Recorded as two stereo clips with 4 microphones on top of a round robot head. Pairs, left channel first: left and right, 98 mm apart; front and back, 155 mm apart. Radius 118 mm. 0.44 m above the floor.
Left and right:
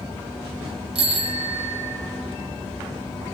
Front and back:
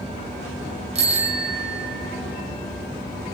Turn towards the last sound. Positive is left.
turn(degrees=-125)